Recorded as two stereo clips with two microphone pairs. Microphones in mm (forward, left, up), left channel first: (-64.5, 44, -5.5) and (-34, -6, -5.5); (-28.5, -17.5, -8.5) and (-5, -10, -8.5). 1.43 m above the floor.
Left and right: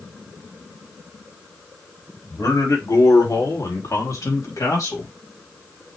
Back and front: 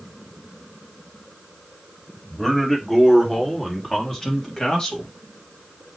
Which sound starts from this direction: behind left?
A man speaking, at 2.3 s.